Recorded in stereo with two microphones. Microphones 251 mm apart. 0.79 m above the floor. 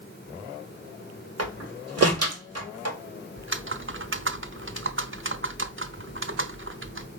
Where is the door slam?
80° right, 2.5 m.